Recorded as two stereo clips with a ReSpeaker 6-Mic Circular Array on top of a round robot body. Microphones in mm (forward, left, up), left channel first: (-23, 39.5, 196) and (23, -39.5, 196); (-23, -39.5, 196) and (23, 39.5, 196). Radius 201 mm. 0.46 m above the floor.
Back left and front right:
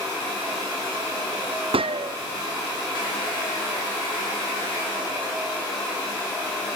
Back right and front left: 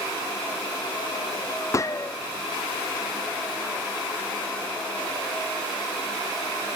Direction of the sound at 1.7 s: 65° right.